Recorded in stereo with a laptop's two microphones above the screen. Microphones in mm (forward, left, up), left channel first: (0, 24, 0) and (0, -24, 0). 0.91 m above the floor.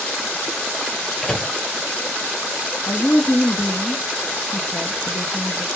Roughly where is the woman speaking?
Left.